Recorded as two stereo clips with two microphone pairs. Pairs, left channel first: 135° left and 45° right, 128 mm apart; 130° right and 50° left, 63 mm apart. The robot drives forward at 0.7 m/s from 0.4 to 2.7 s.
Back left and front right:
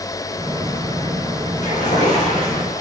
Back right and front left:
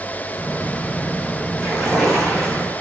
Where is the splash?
140° left, 5.5 m; by 2.8 s 145° left, 6 m.